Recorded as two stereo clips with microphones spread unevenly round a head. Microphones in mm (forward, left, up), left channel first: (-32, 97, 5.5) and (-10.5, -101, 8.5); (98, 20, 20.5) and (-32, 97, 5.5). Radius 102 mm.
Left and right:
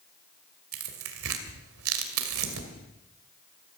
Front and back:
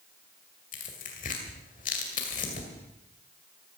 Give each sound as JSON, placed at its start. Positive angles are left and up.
{"t": 0.7, "sound": "tearing paper", "azimuth_deg": -75, "distance_m": 2.0}